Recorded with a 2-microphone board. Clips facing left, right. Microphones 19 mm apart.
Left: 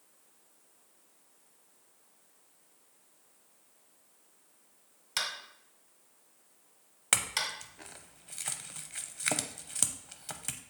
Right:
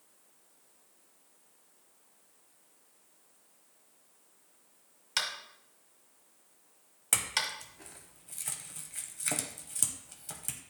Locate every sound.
5.2 s tapping: 5° right (ahead or behind), 1.5 m
7.1 s a clink: 30° left (ahead or behind), 0.6 m